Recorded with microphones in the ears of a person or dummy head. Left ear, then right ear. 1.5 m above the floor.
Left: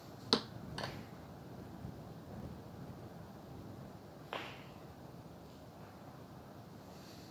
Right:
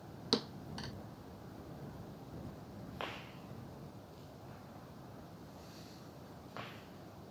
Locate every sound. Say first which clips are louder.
0.3 s a thud: left 1 dB; 5° left (ahead or behind)